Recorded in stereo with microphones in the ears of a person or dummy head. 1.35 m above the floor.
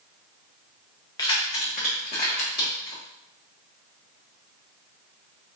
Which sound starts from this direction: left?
Keys jangling, at 1.2 s.